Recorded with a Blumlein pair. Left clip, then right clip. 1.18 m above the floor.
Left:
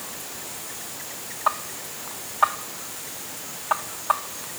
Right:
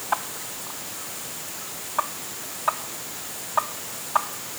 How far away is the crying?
I don't hear crying.